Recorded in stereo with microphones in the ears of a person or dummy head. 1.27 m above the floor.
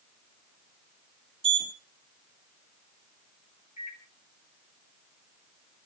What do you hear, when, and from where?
1.4 s a sliding door: 25° right (ahead or behind), 0.8 m
3.8 s a microwave: 40° left (ahead or behind), 3 m